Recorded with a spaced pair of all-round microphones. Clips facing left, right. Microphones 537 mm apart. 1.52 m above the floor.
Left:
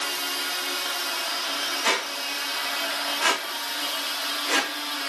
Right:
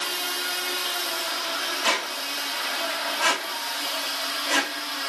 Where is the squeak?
35° right (ahead or behind), 1.0 m.